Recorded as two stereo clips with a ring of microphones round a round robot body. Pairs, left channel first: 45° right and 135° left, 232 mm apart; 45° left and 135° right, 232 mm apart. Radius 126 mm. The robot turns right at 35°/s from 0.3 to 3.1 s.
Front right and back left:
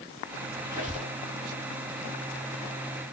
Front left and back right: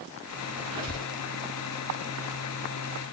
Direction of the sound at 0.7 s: 150° right.